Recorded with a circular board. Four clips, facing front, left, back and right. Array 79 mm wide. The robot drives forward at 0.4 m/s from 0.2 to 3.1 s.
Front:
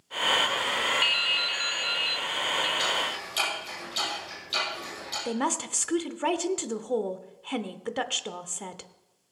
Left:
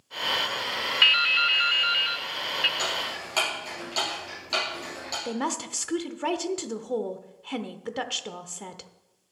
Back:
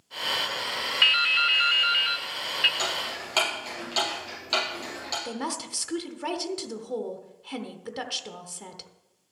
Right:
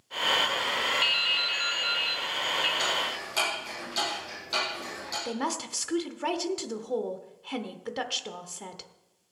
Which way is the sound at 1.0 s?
120° left.